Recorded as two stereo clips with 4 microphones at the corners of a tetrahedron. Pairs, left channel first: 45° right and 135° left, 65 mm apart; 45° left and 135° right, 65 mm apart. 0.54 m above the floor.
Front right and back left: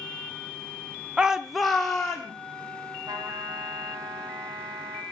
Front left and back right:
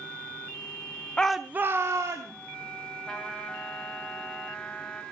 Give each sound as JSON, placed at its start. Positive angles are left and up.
{"t": 1.2, "sound": "a shout", "azimuth_deg": 90, "distance_m": 0.6}
{"t": 3.1, "sound": "a trumpet", "azimuth_deg": 130, "distance_m": 1.8}